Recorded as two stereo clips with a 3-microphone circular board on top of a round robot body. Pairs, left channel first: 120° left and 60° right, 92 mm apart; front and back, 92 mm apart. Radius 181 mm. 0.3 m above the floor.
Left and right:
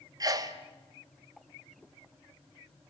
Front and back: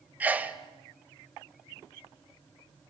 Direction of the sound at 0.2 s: 110° right.